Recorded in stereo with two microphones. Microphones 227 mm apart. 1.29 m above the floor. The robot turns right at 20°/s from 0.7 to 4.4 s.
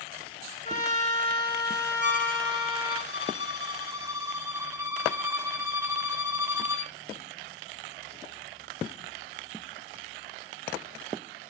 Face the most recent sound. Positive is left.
turn(degrees=-15)